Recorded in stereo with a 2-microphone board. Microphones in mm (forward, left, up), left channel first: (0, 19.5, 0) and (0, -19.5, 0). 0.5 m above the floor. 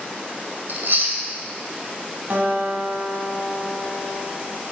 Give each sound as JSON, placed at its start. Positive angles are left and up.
{"t": 0.7, "sound": "chewing", "side_deg": -65, "distance_m": 2.0}
{"t": 2.3, "sound": "a guitar", "side_deg": -55, "distance_m": 2.5}